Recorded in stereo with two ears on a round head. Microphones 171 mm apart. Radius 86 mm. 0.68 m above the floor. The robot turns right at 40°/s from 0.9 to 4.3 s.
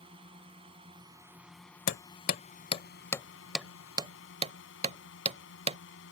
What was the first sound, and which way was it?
A drone, 25° right.